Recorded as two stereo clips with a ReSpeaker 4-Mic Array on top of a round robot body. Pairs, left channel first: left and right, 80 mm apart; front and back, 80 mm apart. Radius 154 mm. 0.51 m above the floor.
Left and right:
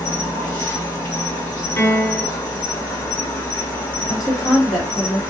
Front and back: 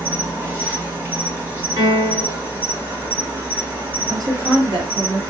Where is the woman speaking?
Straight behind, 1.7 m.